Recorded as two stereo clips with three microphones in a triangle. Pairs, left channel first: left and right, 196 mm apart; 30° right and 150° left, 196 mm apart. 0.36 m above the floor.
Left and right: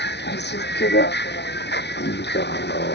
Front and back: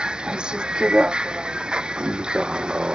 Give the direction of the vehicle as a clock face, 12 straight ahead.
10 o'clock.